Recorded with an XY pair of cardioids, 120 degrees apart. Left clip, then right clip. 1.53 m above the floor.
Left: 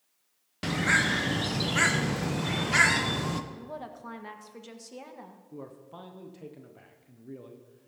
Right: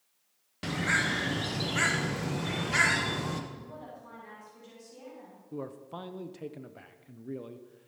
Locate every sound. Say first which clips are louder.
0.6 s a bird: left 3 dB; 25° left, 0.8 m
3.5 s a woman speaking: left 4 dB; 60° left, 1.5 m
5.5 s a man speaking: right 6 dB; 30° right, 0.6 m